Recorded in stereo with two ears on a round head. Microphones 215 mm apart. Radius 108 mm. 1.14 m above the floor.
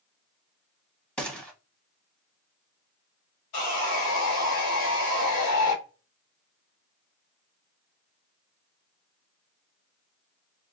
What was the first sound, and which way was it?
A gunshot, 5° left (ahead or behind).